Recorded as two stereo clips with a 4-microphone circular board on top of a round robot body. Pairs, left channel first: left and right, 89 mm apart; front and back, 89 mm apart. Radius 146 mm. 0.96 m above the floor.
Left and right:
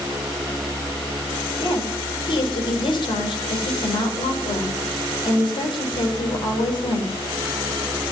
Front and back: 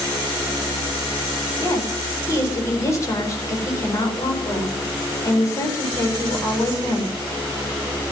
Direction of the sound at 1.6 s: 55° left.